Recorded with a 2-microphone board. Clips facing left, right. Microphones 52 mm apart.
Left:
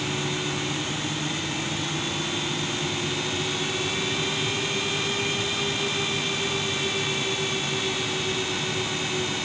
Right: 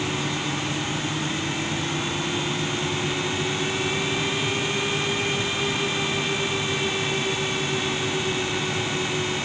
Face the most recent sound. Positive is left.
No sound to turn to.